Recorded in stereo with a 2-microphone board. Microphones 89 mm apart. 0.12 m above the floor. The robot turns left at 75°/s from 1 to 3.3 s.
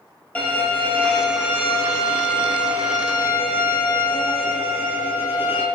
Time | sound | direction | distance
0.3 | a violin | 20° left | 0.6 m